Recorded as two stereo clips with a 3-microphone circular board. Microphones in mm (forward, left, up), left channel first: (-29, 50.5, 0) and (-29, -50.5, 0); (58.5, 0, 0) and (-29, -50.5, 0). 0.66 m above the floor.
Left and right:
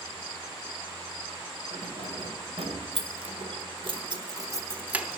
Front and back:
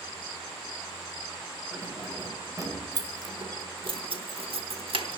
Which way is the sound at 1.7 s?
90° right.